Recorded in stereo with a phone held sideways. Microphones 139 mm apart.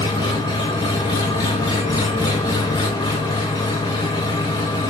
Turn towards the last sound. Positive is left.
turn(degrees=30)  # may be behind; listen again after turning